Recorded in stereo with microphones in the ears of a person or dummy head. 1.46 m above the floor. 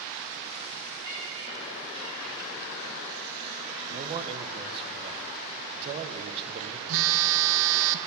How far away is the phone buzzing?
About 0.9 m.